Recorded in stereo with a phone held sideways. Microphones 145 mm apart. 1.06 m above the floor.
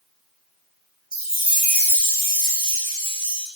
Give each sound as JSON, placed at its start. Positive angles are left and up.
{"t": 1.1, "sound": "a chime", "side_deg": 80, "distance_m": 2.0}